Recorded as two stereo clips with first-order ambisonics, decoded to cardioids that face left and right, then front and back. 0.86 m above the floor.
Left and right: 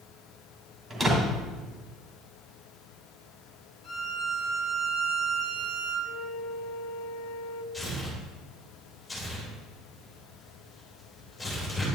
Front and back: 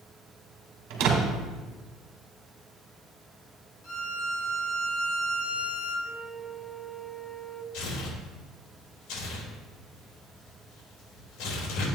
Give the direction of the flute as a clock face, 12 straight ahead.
9 o'clock.